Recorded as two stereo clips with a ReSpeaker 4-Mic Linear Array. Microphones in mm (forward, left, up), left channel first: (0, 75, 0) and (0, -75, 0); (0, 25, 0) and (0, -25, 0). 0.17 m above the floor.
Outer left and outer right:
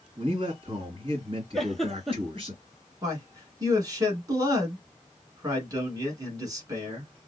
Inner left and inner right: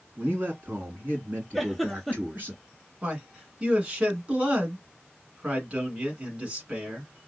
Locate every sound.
0.2 s a man speaking: 40° right (ahead or behind), 1.9 m
1.5 s a giggle: centre (ahead or behind), 0.7 m
3.0 s a man speaking: 25° right (ahead or behind), 1.4 m